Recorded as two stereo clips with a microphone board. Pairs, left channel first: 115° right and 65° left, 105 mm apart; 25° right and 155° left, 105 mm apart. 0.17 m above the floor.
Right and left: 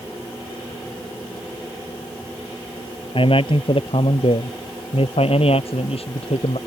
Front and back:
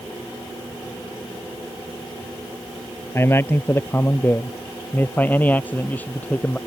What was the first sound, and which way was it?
A man speaking, 85° right.